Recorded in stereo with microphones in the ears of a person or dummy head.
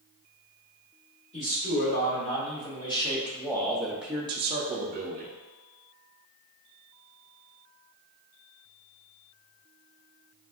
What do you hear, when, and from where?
1.3 s a man speaking: 30° left (ahead or behind), 2.0 m; by 5.3 s 45° right (ahead or behind), 0.8 m